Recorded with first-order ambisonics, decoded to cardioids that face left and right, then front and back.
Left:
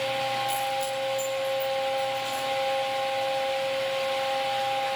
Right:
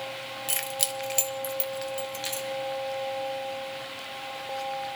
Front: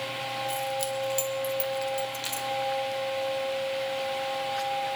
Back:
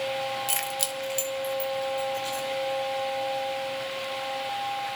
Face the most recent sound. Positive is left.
turn(degrees=-45)